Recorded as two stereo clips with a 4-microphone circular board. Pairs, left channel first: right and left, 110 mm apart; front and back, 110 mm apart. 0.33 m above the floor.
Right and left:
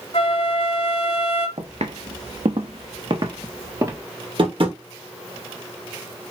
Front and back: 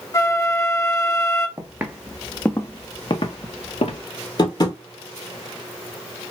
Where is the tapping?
50° left, 1.5 m.